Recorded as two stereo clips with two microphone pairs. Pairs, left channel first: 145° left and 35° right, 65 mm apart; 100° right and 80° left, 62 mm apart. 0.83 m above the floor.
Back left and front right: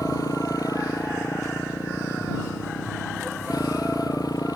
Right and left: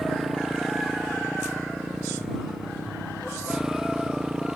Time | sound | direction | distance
0.0 | a motorcycle | 165° left | ?